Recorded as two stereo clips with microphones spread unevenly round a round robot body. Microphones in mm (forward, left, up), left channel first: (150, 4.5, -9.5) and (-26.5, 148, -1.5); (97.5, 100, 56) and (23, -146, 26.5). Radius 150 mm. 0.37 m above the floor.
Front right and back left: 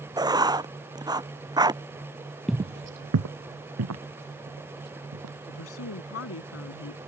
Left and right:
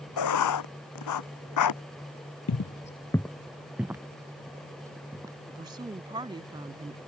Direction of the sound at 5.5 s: 35° right.